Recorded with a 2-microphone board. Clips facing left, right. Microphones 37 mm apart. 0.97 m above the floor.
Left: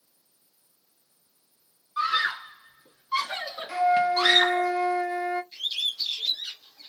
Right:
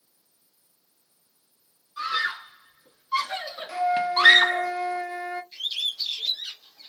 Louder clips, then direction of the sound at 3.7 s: Left 2 dB; 15° left (ahead or behind).